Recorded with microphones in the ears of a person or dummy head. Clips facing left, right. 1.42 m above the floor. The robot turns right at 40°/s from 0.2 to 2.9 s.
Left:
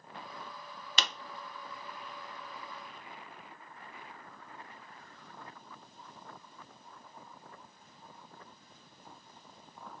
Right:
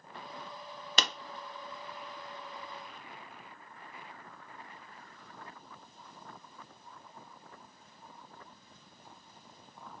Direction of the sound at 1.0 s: 45° right (ahead or behind).